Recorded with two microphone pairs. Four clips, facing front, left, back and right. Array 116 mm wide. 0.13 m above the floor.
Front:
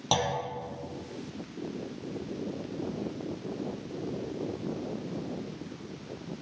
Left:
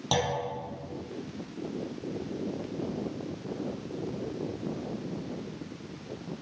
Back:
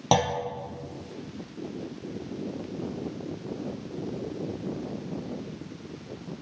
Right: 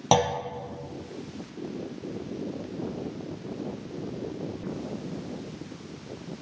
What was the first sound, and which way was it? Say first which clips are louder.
A clunk: right 6 dB, back 5 dB; 120° right.